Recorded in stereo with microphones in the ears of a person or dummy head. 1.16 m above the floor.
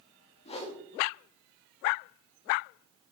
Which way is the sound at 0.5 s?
30° left (ahead or behind).